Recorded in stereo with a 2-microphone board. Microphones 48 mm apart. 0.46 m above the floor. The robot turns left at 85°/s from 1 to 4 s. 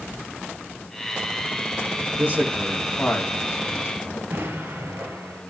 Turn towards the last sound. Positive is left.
turn(degrees=-55)  # may be behind; listen again after turning